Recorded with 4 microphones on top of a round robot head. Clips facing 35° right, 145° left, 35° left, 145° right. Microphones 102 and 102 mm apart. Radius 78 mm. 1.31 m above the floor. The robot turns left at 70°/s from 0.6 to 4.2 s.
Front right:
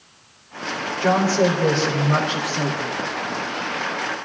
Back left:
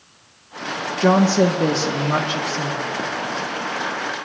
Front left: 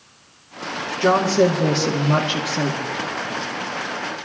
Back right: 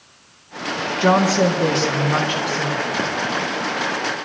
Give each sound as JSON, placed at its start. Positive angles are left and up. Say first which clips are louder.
{"t": 1.0, "sound": "a woman speaking", "louder": "back left 3 dB, even", "azimuth_deg": 150, "distance_m": 1.4}